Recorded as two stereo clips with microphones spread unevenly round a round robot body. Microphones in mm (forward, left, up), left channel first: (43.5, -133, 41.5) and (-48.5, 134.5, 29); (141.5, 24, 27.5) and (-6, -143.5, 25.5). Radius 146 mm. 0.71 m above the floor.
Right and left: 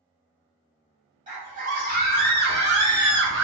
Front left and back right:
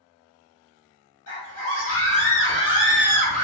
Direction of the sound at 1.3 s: 50° left.